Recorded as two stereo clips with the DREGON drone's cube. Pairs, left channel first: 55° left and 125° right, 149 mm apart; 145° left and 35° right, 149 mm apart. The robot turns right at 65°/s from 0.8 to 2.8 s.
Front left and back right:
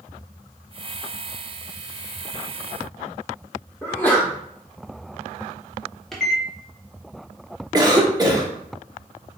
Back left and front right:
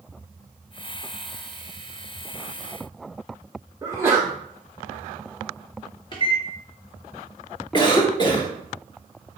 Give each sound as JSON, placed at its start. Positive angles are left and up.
{"t": 3.8, "sound": "a sneeze", "azimuth_deg": 0, "distance_m": 0.6}
{"t": 6.1, "sound": "a microwave", "azimuth_deg": 140, "distance_m": 0.7}
{"t": 7.7, "sound": "a cough", "azimuth_deg": -175, "distance_m": 0.9}